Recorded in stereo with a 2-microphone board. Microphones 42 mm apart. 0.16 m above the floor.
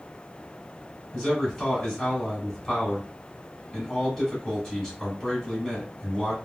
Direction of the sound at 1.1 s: 10° left (ahead or behind).